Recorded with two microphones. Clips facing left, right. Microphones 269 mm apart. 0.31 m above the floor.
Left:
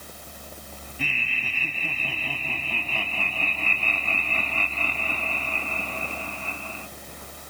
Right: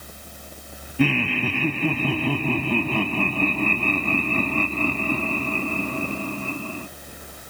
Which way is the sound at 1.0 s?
70° right (ahead or behind).